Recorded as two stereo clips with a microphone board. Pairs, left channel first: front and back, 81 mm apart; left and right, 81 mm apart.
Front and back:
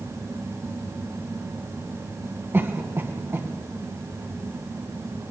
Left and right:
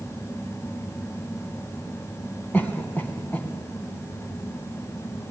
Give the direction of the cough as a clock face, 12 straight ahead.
7 o'clock.